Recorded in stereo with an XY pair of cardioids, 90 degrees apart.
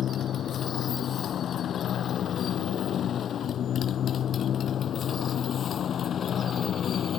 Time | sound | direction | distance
0.0 | a motorcycle | 65° left | ?